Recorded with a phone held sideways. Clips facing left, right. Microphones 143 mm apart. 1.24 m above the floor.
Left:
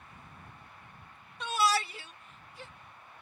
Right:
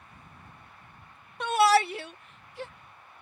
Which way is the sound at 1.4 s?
60° right (ahead or behind).